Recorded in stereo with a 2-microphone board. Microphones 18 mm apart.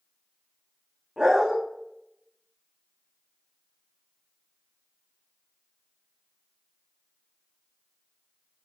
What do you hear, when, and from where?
1.2 s a dog barking: 45° right (ahead or behind), 2.5 m